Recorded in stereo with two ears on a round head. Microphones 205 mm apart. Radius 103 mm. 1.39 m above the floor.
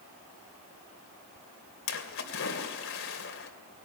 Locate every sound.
1.9 s a splash: 60° left (ahead or behind), 2.5 m